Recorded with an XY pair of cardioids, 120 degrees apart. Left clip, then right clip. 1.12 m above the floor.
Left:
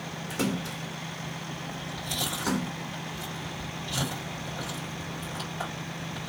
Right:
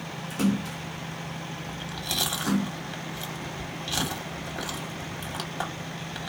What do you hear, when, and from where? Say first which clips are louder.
0.3 s a splash: right 2 dB; 15° left, 1.3 m
1.7 s chewing: right 4 dB; 50° right, 1.9 m